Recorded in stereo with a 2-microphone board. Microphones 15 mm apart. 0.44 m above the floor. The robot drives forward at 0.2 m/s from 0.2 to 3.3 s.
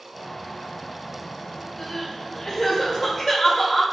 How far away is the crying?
About 1.8 m.